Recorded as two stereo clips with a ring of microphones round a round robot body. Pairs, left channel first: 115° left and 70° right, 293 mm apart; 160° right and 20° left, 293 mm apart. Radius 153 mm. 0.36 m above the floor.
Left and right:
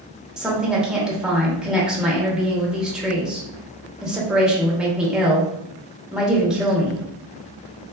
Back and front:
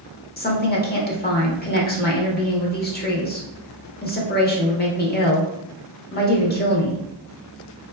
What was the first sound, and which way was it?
A woman speaking, 155° right.